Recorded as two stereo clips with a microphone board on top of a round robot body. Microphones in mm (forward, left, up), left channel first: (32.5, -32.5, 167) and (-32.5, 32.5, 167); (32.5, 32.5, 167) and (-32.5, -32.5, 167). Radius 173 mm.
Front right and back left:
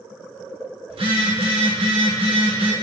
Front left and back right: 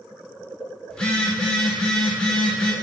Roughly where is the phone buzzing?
Behind left.